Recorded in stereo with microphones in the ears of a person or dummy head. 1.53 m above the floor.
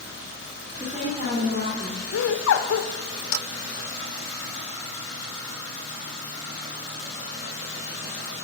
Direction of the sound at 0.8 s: 40° right (ahead or behind).